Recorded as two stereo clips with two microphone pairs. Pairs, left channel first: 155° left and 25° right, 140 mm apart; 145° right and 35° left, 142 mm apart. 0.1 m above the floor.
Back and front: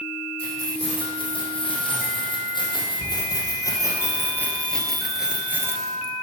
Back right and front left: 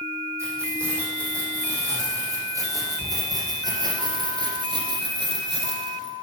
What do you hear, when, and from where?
0.4 s keys jangling: 105° left, 4 m; by 6.1 s straight ahead, 1.3 m